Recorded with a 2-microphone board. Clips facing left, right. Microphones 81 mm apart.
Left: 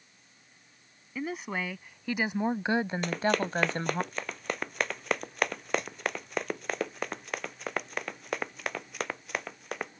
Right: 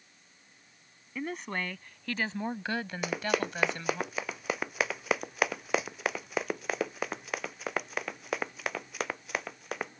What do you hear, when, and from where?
1.1 s a woman speaking: 5° left (ahead or behind); by 4.0 s 45° left (ahead or behind)
3.0 s running footsteps: 10° right (ahead or behind); by 9.9 s 5° right (ahead or behind)